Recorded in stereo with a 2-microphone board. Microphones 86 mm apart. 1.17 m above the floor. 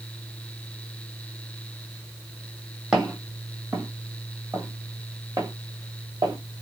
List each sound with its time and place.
2.9 s footsteps: 10° right (ahead or behind), 1.9 m; by 6.4 s 45° right (ahead or behind), 1.5 m